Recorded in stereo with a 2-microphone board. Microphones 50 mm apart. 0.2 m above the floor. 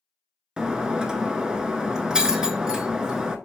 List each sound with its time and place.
0.6 s breaking glass: 15° right (ahead or behind), 0.6 m